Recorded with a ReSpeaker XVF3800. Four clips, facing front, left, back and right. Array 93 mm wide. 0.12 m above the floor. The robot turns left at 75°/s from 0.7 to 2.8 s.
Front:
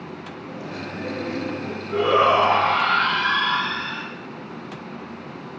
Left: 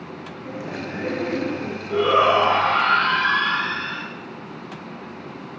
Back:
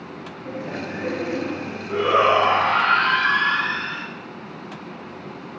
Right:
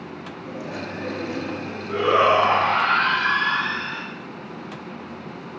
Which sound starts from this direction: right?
A shout, at 1.9 s.